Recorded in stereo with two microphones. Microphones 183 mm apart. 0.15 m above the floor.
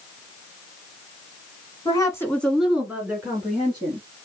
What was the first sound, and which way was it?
A woman speaking, 25° left (ahead or behind).